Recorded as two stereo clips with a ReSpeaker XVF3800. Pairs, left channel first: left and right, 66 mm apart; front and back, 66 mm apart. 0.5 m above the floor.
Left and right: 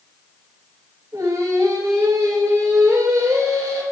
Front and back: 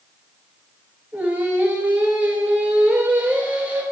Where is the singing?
110° right, 1.6 m.